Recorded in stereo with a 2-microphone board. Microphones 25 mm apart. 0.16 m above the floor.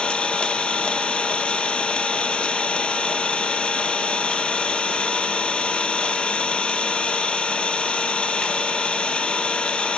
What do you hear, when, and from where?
0.0 s an engine running: 40° left (ahead or behind), 1.0 m